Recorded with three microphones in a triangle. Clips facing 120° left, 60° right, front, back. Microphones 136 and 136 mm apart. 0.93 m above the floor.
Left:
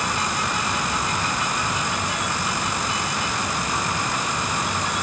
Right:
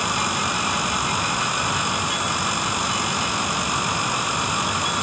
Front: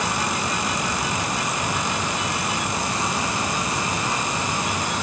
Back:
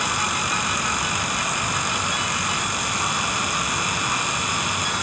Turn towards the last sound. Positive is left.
No sound to turn to.